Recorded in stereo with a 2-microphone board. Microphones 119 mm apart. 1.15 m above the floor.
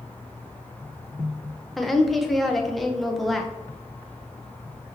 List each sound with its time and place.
1.8 s a woman speaking: centre (ahead or behind), 0.7 m